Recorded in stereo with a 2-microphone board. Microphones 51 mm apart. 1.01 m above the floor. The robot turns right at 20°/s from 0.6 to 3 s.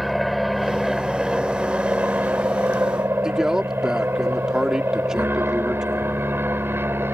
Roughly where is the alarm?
I don't hear an alarm.